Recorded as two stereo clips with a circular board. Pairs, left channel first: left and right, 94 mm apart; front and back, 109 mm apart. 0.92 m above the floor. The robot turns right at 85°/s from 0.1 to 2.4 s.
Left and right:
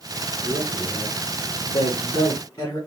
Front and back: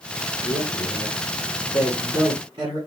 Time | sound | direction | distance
0.4 | a man speaking | 30° right | 2.5 m